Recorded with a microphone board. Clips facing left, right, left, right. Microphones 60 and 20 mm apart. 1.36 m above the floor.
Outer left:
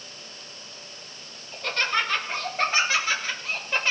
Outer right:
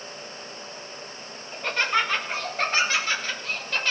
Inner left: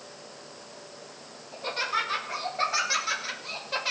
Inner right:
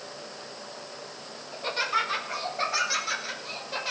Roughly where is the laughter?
Centre.